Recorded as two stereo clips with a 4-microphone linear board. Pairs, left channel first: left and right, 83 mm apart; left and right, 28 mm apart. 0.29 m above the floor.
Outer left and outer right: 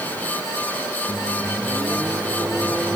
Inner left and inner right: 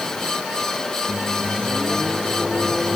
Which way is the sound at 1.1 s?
10° right (ahead or behind).